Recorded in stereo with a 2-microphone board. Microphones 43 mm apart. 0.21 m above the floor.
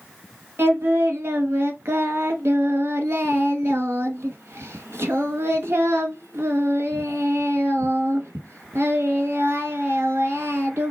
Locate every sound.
0.6 s singing: 70° right (ahead or behind), 1.0 m